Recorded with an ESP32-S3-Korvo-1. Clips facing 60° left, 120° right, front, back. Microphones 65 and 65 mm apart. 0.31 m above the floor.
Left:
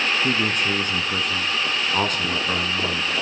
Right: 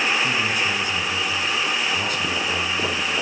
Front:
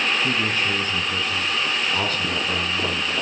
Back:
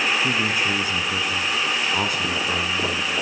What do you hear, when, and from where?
0.2 s a man speaking: 100° left, 2.5 m